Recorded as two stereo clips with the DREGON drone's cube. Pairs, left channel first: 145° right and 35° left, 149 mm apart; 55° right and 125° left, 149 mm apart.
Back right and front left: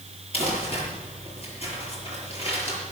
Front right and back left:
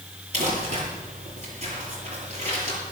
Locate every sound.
0.3 s crumpling: 165° left, 7 m